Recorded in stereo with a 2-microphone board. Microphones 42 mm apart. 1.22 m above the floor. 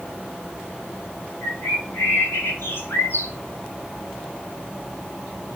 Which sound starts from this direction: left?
A bird, at 1.4 s.